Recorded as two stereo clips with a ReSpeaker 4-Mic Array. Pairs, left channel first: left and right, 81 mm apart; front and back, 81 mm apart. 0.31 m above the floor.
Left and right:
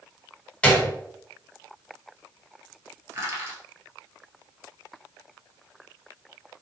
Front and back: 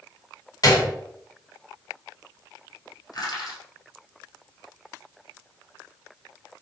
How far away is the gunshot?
About 0.9 m.